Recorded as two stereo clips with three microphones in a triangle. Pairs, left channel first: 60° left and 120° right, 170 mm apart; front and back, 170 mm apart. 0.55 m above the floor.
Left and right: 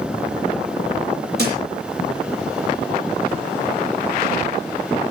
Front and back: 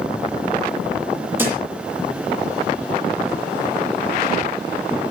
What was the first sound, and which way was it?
A thud, 100° right.